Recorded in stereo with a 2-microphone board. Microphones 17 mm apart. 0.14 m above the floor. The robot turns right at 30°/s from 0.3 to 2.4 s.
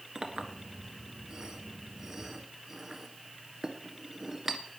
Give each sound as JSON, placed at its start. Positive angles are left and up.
{"t": 0.1, "sound": "a clink", "side_deg": -50, "distance_m": 1.3}